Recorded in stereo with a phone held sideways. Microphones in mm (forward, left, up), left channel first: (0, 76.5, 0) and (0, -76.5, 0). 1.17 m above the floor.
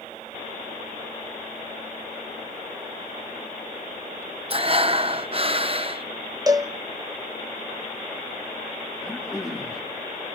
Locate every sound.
4.5 s breathing: 40° right (ahead or behind), 0.6 m
6.5 s a cowbell: 25° right (ahead or behind), 0.8 m
9.0 s throat clearing: 5° right (ahead or behind), 3 m